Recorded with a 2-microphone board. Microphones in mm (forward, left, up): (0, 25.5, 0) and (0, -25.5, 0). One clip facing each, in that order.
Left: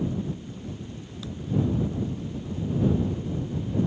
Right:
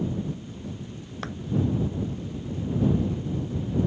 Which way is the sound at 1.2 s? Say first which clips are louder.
Right 4 dB; 60° right (ahead or behind).